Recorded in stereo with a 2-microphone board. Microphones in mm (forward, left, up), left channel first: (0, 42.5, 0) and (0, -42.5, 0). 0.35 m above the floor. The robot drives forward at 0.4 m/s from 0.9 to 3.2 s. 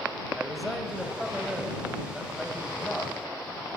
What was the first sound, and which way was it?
A man speaking, centre (ahead or behind).